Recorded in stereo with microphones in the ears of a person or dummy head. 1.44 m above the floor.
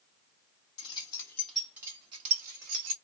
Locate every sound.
0.8 s keys jangling: 30° left (ahead or behind), 1.4 m; by 3.0 s 60° right (ahead or behind), 1.3 m